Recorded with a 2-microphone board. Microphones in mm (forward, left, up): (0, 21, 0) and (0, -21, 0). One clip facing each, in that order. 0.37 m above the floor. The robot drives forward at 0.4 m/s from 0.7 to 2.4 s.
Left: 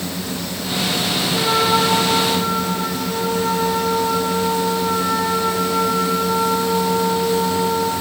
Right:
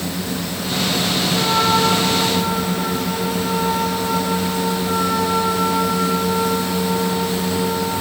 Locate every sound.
1.3 s a trumpet: 30° left (ahead or behind), 8 m